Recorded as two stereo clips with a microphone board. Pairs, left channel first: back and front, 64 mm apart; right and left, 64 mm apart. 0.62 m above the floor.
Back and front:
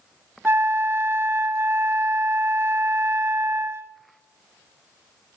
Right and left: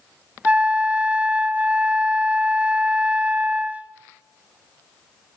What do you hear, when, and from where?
0.5 s a flute: 30° left, 0.6 m